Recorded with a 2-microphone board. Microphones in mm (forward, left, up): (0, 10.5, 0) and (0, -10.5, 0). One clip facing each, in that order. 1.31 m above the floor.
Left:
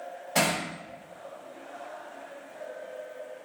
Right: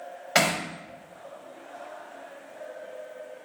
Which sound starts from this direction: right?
Hammering, at 0.3 s.